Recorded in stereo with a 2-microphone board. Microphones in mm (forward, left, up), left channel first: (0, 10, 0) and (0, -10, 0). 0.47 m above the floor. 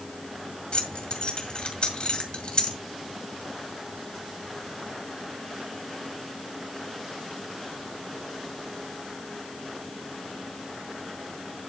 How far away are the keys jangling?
About 2.0 m.